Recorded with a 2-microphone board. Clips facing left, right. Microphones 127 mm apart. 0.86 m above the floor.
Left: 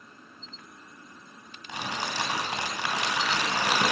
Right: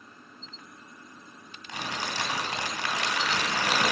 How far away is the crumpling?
About 3 m.